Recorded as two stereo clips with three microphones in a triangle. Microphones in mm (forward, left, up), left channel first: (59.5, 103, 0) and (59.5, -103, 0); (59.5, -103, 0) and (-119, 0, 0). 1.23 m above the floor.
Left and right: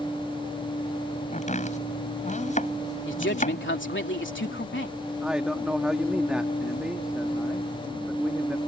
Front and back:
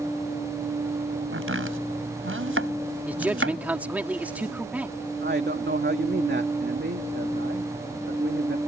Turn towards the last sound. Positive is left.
turn(degrees=-175)